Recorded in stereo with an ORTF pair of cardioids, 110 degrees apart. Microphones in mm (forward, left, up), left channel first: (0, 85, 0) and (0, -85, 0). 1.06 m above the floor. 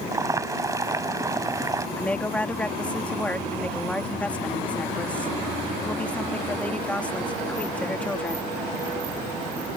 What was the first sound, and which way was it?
Boiling, 20° right.